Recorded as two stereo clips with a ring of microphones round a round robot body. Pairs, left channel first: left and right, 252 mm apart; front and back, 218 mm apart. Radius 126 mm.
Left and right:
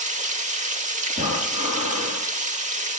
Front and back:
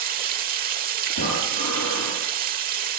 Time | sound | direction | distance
0.0 | running water | 140° right | 1.1 m
1.1 | breathing | 25° right | 9.5 m